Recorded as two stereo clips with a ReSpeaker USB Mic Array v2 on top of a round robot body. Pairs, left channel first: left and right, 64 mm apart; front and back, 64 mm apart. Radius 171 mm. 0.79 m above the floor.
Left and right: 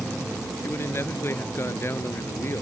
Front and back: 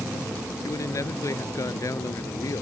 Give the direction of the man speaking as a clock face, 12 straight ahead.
11 o'clock.